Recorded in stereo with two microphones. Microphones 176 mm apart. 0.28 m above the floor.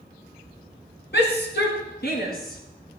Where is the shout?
75° left (ahead or behind), 3.5 m; by 3.0 s 50° left (ahead or behind), 3 m.